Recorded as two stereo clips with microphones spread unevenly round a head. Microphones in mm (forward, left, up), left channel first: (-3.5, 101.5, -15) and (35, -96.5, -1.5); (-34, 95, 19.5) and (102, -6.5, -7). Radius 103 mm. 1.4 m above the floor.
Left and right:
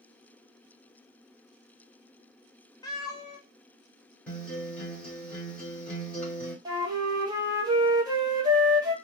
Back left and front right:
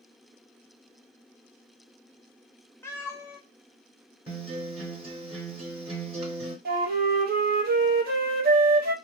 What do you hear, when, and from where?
2.8 s a cat meowing: 155° left, 0.5 m
4.3 s a guitar: 15° left, 1.6 m
6.7 s a flute: 5° right, 0.8 m